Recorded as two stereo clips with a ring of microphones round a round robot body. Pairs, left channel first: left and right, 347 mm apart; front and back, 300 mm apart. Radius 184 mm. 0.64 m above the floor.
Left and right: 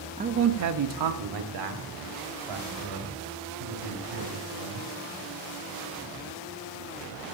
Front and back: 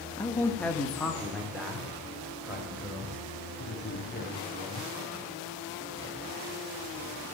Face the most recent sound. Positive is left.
turn(degrees=-90)